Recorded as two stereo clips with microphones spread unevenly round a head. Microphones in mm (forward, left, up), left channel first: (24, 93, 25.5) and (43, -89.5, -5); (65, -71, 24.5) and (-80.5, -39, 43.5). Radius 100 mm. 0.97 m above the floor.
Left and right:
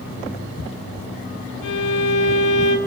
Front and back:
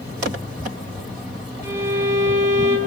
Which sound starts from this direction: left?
A violin, at 1.6 s.